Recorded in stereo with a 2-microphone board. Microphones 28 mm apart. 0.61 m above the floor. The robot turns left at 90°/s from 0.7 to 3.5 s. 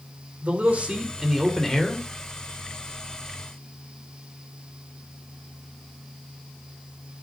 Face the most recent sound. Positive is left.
turn(degrees=0)